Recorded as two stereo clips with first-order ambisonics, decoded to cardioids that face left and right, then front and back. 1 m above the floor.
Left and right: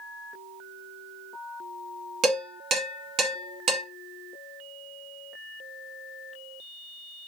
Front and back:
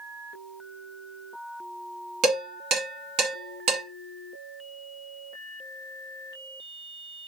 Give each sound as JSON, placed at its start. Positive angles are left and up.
{"t": 2.2, "sound": "dishes clattering", "azimuth_deg": -145, "distance_m": 1.2}